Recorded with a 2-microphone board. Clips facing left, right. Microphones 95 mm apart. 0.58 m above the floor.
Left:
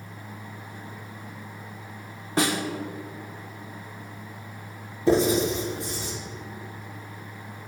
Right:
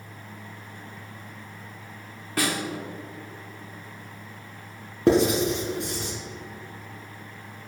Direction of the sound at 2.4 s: 25° left (ahead or behind).